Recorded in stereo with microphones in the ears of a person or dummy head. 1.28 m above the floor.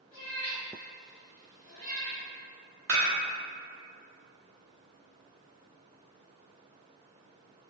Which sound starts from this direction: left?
A cat meowing, at 0.1 s.